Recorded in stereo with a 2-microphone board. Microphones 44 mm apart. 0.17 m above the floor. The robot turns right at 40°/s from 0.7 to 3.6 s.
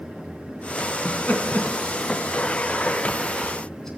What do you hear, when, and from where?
1.1 s laughter: 40° left (ahead or behind), 1.6 m; by 3.9 s 10° left (ahead or behind), 1.6 m